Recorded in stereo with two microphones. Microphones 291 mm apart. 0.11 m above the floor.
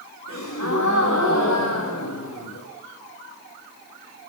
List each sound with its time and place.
0.3 s a gasp: 65° left (ahead or behind), 8 m